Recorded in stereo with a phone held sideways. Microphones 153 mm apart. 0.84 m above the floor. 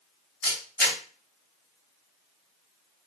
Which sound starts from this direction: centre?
A camera shutter, at 0.4 s.